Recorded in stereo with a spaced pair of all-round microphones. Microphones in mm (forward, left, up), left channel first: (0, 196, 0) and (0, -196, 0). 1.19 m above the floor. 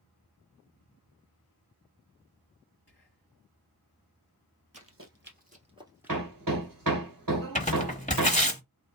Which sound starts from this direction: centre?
Tearing paper, at 7.5 s.